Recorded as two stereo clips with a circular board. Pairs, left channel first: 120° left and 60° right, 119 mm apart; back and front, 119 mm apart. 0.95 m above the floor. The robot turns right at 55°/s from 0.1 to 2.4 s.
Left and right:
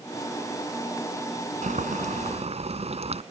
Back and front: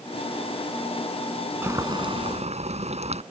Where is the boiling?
70° right; by 3.2 s 30° right.